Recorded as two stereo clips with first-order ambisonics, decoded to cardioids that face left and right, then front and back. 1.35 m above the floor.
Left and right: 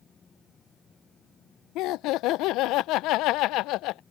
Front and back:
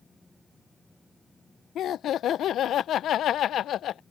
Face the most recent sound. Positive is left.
turn(degrees=55)